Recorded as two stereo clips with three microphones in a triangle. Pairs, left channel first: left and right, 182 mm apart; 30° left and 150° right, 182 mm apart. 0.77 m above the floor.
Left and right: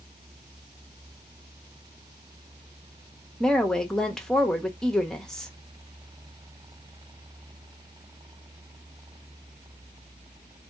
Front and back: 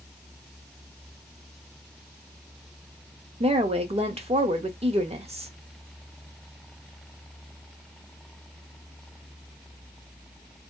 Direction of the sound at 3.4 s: 175° left.